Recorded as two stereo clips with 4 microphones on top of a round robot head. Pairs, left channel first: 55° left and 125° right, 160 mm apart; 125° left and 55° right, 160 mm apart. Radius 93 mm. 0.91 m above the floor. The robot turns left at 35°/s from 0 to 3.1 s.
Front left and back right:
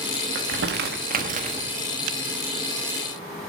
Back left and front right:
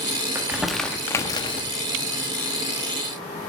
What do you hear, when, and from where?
0.3 s crumpling: 135° right, 1.2 m; by 1.6 s straight behind, 1.2 m